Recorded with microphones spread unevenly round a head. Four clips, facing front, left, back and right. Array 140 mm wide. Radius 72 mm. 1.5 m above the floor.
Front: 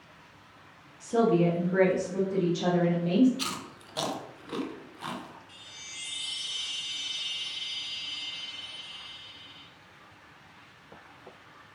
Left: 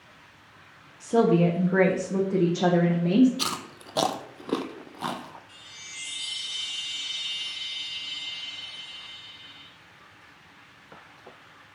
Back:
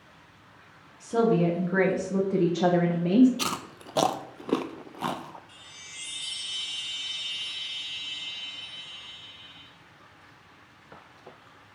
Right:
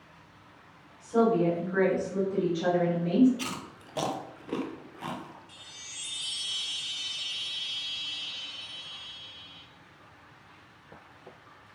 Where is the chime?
90° right, 1.5 m.